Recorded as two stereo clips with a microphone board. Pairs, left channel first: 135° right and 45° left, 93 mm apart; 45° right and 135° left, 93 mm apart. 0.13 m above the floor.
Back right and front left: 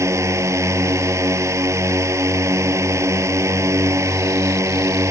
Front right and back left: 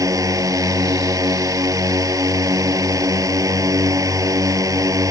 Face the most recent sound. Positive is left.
turn(degrees=95)